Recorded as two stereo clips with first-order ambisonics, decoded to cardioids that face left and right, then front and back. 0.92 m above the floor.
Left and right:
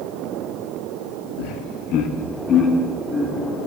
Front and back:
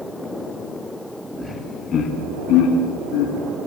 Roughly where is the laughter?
Left.